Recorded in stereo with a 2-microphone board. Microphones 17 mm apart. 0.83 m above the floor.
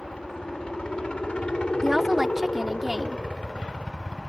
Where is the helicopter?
65° left (ahead or behind); by 4.3 s 60° left (ahead or behind).